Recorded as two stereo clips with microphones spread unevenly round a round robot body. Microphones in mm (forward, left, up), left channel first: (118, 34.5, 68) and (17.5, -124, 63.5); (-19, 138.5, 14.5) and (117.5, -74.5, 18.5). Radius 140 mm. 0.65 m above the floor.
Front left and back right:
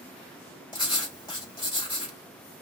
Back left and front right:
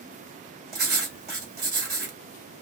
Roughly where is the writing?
Ahead.